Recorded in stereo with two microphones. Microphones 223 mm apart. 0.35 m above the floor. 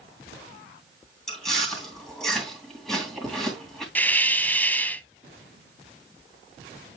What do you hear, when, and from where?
1.3 s chewing: centre (ahead or behind), 2.5 m
4.0 s a hiss: 10° left (ahead or behind), 0.5 m